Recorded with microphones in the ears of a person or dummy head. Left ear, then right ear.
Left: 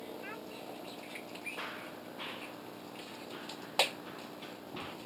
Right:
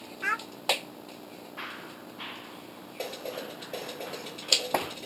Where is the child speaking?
55° right (ahead or behind).